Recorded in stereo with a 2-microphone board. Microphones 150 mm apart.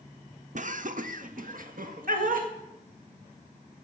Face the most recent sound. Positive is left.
turn(degrees=-65)  # may be behind; listen again after turning